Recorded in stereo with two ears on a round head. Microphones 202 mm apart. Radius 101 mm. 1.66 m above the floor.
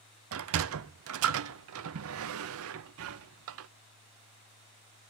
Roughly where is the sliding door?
Right.